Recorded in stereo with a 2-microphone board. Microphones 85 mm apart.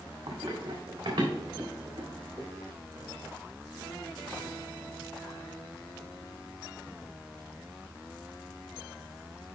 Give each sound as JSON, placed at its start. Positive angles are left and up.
{"t": 0.3, "sound": "running footsteps", "side_deg": -65, "distance_m": 2.0}